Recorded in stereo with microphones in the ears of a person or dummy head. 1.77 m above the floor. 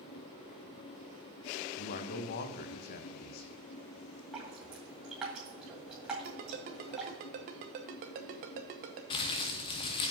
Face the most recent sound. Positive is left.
turn(degrees=25)  # may be behind; listen again after turning